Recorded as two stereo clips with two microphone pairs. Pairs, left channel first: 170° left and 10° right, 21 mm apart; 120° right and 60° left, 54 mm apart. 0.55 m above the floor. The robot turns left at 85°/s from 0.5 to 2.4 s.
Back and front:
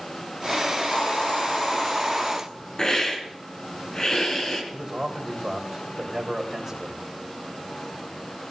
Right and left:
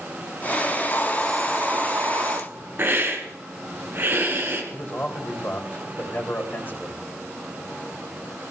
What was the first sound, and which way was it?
A hiss, 155° right.